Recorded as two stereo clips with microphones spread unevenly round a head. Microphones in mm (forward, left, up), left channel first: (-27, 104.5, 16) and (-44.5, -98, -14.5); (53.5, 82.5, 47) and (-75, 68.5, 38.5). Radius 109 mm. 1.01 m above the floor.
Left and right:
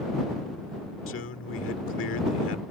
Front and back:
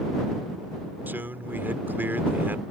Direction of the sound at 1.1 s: 110° left.